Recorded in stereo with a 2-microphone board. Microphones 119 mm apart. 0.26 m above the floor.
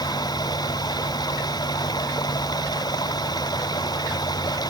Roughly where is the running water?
Left.